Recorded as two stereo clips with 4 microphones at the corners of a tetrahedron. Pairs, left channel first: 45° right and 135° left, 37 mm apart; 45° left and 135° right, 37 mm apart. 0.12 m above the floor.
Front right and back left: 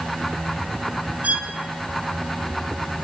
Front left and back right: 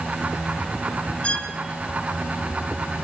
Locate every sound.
1.2 s a violin: 95° left, 2.5 m